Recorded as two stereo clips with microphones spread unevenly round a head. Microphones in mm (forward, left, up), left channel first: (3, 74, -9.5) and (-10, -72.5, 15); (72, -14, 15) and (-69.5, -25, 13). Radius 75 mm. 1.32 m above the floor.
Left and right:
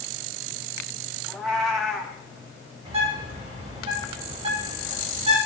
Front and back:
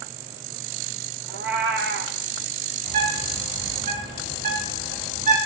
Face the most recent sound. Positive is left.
turn(degrees=-150)